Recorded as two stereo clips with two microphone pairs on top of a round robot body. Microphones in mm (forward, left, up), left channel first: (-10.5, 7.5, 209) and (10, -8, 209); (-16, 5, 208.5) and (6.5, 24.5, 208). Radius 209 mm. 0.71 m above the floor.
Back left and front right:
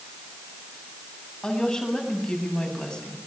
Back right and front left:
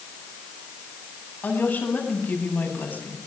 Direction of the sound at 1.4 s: 155° right.